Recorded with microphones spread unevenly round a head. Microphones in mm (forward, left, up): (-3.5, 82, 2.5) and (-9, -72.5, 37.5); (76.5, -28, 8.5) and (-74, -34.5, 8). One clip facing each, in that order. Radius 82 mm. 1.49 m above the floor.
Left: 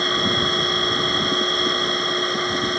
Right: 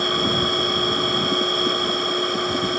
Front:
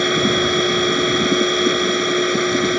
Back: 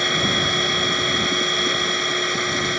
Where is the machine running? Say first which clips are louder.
Right 1 dB, front 7 dB; 5° right.